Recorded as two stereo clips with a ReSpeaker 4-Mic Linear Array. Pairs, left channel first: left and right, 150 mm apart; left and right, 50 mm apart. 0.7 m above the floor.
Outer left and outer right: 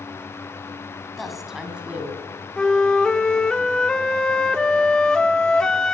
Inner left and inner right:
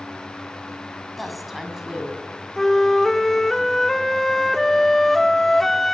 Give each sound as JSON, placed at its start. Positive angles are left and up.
{"t": 1.2, "sound": "a woman speaking", "side_deg": 0, "distance_m": 6.0}
{"t": 2.6, "sound": "a flute", "side_deg": 5, "distance_m": 1.3}